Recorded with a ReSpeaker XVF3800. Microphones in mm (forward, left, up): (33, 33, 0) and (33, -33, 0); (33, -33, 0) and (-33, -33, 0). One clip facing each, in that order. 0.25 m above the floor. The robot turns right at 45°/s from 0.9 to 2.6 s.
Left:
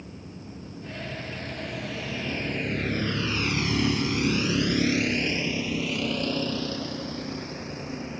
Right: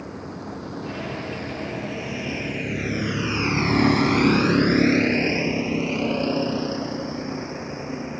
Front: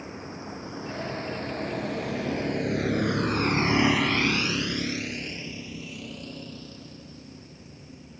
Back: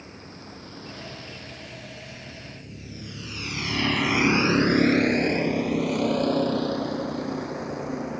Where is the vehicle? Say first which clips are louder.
Right 8 dB, front 5 dB; 70° right; by 8.2 s 160° right.